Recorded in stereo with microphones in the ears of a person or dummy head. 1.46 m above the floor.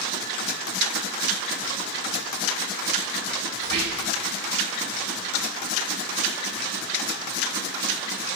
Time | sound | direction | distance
3.6 | whispering | 70° right (ahead or behind) | 2.5 m